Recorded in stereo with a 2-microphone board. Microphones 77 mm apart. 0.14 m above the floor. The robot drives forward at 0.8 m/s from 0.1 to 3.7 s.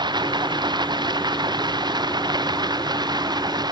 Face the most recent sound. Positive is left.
turn(degrees=-65)  # may be behind; listen again after turning